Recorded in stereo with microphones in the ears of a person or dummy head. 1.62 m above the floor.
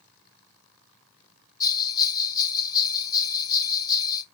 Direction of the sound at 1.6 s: 25° left (ahead or behind).